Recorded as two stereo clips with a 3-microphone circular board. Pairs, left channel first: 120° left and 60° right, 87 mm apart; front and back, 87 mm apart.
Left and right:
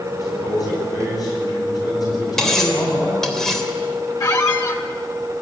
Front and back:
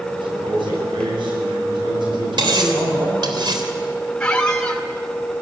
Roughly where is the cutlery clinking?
Behind right.